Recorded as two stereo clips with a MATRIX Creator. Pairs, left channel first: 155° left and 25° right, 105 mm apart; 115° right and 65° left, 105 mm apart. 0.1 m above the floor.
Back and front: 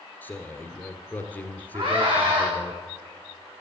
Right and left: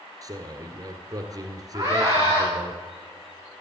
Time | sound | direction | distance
0.2 | a man speaking | 95° left | 1.8 m
1.7 | a scream | 10° left | 6.5 m